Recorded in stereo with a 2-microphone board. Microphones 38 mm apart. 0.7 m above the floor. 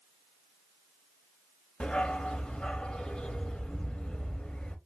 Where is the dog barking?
25° left (ahead or behind), 0.7 m.